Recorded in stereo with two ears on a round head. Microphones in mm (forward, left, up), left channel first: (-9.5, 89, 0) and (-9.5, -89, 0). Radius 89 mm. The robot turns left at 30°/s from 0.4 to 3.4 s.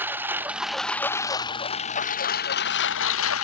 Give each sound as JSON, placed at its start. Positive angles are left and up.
{"t": 0.0, "sound": "a lawn mower", "azimuth_deg": -170}